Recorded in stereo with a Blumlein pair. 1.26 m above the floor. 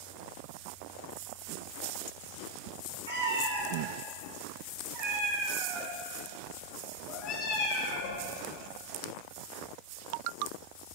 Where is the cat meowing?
65° right, 2 m; by 8.2 s 55° left, 1.7 m.